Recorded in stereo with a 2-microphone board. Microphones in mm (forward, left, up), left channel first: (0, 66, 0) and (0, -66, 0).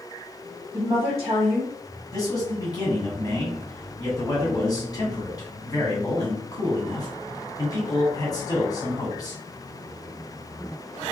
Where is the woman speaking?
20° right (ahead or behind), 1.1 m.